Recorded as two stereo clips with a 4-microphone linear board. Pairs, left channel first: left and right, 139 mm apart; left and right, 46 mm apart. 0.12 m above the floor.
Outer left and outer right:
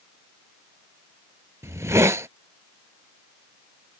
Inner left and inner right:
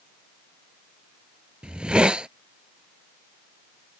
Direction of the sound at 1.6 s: 20° right (ahead or behind).